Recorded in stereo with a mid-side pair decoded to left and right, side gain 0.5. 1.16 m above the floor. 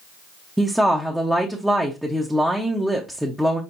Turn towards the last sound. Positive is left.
turn(degrees=-5)